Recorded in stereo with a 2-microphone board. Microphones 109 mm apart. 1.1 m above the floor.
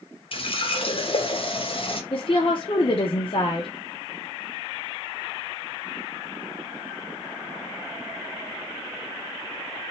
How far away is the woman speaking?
About 0.5 m.